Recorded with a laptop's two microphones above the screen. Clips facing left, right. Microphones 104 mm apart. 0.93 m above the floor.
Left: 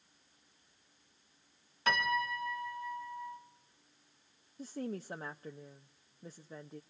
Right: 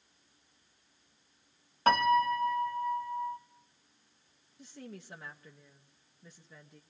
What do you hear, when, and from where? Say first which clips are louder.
1.9 s a piano: right 8 dB; 50° right (ahead or behind), 1.7 m
4.6 s a woman speaking: left 8 dB; 40° left (ahead or behind), 0.8 m